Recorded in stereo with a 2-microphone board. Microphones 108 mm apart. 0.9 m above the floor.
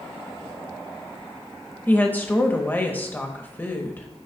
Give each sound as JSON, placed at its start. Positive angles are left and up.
{"t": 1.9, "sound": "a woman speaking", "side_deg": 15, "distance_m": 0.9}